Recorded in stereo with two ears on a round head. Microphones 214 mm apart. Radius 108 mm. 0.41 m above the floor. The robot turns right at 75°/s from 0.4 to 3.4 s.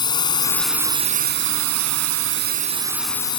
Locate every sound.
0.0 s a drone: 160° left; by 3.4 s 25° left